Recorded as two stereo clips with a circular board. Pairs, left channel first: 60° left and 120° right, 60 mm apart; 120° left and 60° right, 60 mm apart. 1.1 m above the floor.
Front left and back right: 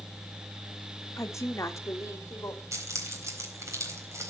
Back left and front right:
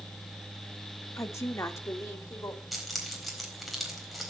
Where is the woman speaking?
90° left, 1.4 m; by 2.6 s 95° left, 3 m.